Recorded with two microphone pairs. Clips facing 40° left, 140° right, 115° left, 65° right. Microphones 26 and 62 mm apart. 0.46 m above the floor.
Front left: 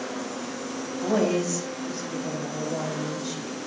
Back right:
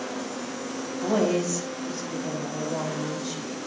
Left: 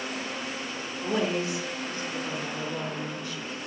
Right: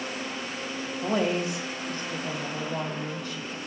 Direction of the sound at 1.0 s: 50° right.